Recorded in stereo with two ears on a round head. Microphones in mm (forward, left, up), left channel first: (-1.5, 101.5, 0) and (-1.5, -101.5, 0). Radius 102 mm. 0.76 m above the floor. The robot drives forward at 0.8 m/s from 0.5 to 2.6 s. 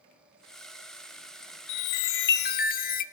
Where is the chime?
85° left, 0.7 m; by 3.0 s 40° left (ahead or behind), 1.0 m.